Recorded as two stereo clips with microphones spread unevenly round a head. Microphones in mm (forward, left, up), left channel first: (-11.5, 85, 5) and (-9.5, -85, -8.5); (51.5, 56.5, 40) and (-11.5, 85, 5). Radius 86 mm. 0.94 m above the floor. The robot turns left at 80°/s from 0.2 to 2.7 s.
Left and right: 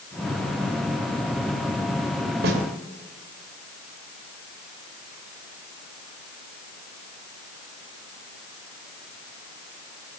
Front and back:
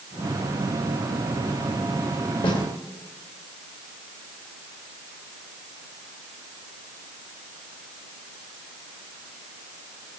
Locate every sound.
2.4 s a snare drum: 55° right, 2.5 m; by 2.6 s 70° right, 2.5 m